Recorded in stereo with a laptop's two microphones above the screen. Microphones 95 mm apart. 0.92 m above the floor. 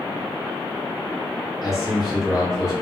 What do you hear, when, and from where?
1.6 s a man speaking: 5° right (ahead or behind), 1.2 m